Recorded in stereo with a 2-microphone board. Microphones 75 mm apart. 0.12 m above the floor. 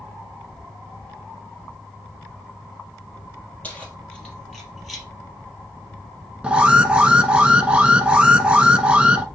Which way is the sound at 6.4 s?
15° right (ahead or behind).